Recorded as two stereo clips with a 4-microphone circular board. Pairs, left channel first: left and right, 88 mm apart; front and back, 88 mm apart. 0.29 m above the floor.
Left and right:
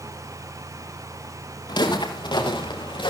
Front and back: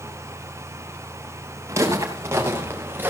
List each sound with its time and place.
1.7 s footsteps: 125° left, 5.5 m; by 3.1 s 115° left, 4 m